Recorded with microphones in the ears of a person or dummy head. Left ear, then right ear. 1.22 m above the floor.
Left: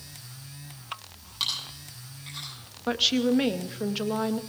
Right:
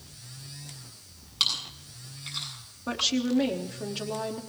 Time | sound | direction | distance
1.4 | chewing | 10° right (ahead or behind) | 8 m
2.9 | a woman speaking | 25° left (ahead or behind) | 0.9 m